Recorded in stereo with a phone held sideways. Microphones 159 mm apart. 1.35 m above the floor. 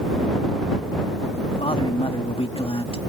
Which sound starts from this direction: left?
A man speaking, at 1.6 s.